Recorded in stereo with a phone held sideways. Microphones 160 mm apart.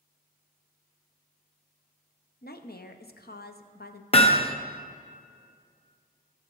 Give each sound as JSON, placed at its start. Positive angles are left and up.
{"t": 2.4, "sound": "a woman speaking", "side_deg": 75, "distance_m": 0.8}
{"t": 4.1, "sound": "hammering", "side_deg": 35, "distance_m": 0.8}